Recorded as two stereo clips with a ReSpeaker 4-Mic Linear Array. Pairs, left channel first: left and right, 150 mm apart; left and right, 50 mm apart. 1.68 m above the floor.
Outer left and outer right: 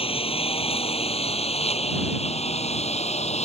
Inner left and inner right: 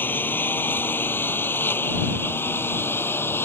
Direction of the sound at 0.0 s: 40° left (ahead or behind).